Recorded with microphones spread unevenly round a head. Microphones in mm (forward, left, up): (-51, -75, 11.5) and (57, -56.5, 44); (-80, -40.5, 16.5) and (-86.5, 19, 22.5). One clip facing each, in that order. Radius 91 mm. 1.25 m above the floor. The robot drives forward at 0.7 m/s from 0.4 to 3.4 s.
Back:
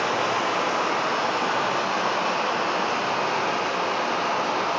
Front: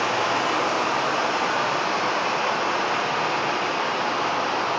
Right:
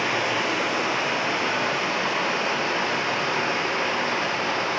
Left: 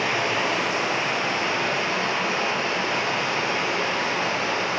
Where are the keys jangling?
I don't hear keys jangling.